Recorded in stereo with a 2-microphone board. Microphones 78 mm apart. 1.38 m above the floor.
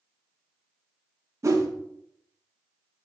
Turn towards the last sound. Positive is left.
turn(degrees=-45)  # may be behind; listen again after turning